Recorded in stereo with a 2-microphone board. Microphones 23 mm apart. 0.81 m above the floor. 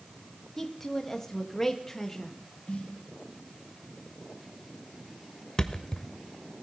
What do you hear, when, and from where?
0.6 s a woman speaking: 15° left (ahead or behind), 0.9 m
2.7 s a snare drum: 75° left (ahead or behind), 3.5 m
5.6 s a thud: 35° left (ahead or behind), 0.7 m